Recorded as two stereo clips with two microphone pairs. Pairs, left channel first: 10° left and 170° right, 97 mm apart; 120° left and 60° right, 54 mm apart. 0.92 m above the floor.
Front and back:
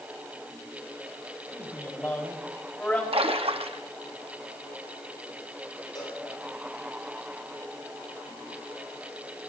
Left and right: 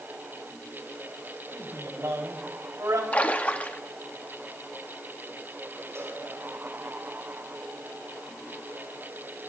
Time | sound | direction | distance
1.5 | a man speaking | 50° right | 4 m
3.1 | a splash | straight behind | 1.0 m
6.0 | a cowbell | 25° right | 7 m